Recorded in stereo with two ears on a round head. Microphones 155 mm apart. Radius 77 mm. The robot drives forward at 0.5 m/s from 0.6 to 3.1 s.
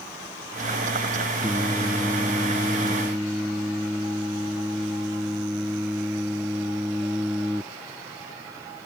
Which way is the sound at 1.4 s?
10° right (ahead or behind).